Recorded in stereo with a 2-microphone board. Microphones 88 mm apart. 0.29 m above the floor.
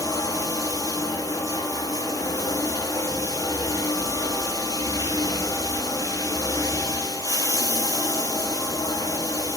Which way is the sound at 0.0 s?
45° left (ahead or behind).